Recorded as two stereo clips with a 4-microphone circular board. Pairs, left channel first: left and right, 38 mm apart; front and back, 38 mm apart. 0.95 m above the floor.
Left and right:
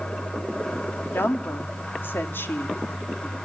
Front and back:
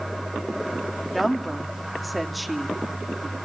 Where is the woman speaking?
90° left, 2.5 m.